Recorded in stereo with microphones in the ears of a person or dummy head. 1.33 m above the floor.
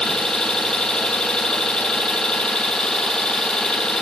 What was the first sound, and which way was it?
An engine running, 10° left (ahead or behind).